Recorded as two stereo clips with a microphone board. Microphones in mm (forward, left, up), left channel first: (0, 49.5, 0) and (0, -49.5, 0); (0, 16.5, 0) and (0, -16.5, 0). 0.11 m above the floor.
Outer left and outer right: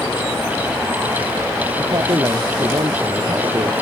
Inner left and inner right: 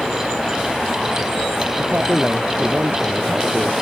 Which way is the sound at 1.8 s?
50° right (ahead or behind).